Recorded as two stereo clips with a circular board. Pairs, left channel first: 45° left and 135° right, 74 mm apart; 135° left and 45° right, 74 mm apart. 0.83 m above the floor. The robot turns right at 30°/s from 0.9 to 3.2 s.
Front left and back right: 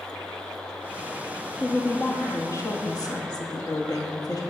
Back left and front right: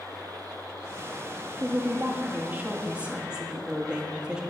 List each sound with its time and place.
1.6 s a woman speaking: 15° right, 1.0 m; by 4.4 s 35° left, 1.0 m